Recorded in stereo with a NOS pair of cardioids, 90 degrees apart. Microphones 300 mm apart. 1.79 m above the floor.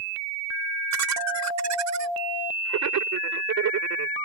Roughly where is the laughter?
Ahead right.